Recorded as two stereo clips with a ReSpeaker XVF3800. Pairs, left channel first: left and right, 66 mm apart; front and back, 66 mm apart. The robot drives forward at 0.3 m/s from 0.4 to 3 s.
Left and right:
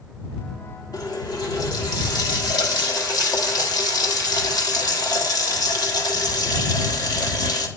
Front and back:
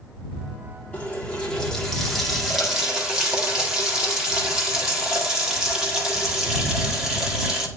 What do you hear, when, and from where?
0.9 s a running tap: 70° left, 1.1 m; by 7.7 s 100° left, 1.1 m